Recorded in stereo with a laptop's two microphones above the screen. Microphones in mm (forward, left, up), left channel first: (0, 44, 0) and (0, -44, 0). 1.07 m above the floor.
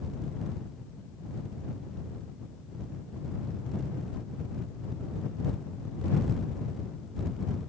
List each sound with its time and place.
Only background noise.